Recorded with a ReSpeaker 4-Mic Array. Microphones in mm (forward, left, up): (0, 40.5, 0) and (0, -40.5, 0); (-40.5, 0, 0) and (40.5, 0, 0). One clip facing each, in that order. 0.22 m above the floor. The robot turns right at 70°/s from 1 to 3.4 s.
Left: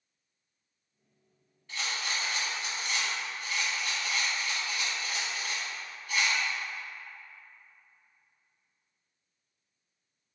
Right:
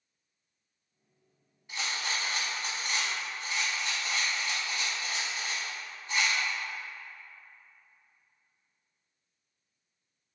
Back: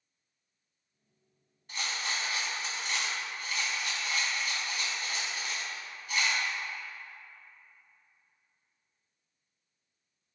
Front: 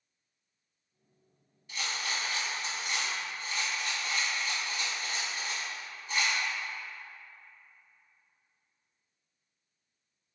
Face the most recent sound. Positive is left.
turn(degrees=-40)